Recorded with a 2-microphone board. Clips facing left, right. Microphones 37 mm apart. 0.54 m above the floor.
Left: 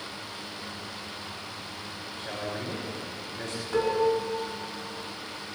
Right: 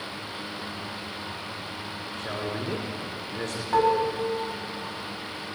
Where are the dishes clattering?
40° right (ahead or behind), 3 m.